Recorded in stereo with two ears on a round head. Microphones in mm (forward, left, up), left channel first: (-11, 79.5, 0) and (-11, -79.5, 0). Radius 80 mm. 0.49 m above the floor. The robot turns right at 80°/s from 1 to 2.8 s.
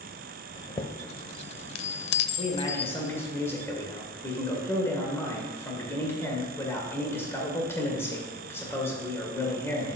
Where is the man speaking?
120° left, 1.9 m; by 10.0 s 165° left, 1.9 m.